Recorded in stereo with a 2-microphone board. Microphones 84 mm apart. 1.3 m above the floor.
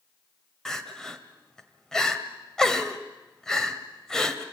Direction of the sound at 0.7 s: 5° left (ahead or behind).